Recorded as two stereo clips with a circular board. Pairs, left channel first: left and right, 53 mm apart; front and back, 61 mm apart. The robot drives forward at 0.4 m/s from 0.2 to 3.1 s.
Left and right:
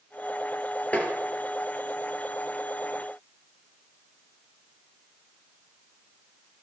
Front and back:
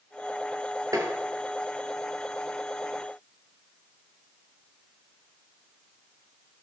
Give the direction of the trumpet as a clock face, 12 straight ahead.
No trumpet in this recording.